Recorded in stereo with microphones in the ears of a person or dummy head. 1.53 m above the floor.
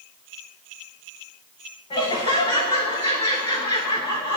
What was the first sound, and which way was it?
Laughter, 30° left (ahead or behind).